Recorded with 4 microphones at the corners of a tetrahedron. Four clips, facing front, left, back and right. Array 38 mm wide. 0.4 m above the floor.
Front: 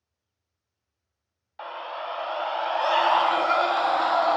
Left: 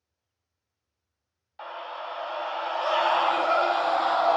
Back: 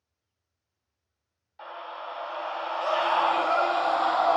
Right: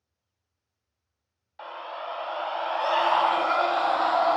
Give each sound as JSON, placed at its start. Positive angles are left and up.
{"t": 1.6, "sound": "a scream", "azimuth_deg": 0, "distance_m": 1.0}